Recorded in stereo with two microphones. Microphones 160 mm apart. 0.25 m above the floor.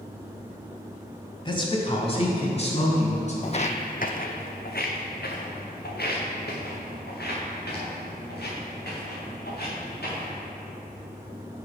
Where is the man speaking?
30° left (ahead or behind), 1.3 m; by 3.3 s 45° left (ahead or behind), 2.5 m.